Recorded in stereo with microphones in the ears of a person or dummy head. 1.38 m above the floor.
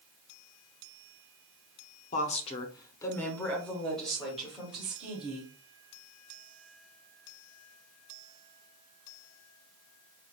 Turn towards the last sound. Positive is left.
turn(degrees=-10)  # may be behind; listen again after turning